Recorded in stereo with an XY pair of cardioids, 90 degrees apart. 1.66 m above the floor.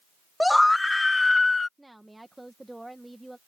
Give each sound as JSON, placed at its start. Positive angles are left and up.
{"t": 0.4, "sound": "a scream", "azimuth_deg": 5}
{"t": 1.8, "sound": "a woman speaking", "azimuth_deg": -10}